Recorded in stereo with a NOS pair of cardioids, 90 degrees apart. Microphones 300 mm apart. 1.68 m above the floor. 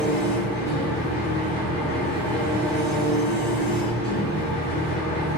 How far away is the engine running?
About 1.4 m.